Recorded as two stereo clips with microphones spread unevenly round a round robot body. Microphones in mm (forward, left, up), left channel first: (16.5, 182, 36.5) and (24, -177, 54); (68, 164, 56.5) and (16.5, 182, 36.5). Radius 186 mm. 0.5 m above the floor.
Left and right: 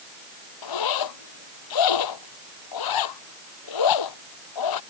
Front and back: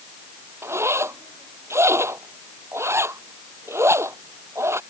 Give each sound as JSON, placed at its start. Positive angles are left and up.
{"t": 0.6, "sound": "a zipper", "azimuth_deg": 125}